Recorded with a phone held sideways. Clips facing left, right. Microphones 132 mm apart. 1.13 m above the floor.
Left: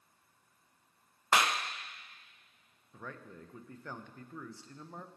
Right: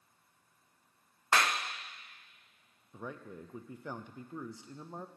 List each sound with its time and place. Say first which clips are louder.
1.3 s a clap: left 1 dB; 15° left (ahead or behind), 0.6 m
2.9 s a man speaking: right 3 dB; 15° right (ahead or behind), 0.6 m